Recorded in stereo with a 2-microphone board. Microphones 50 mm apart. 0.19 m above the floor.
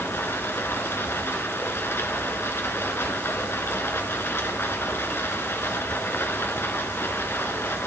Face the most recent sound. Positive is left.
turn(degrees=55)  # may be behind; listen again after turning